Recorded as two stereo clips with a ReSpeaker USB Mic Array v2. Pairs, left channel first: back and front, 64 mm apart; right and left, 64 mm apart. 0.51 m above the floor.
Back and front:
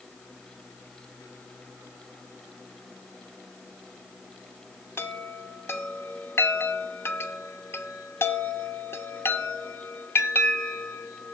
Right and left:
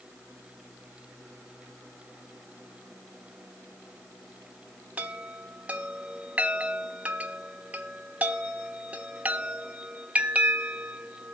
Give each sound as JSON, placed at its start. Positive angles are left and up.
{"t": 5.0, "sound": "a chime", "azimuth_deg": 150, "distance_m": 1.0}